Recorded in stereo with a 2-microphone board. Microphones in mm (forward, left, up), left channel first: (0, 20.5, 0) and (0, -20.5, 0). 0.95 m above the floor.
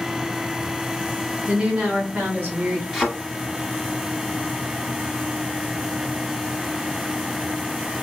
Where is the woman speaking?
15° right (ahead or behind), 0.8 m; by 2.8 s 40° right (ahead or behind), 2 m.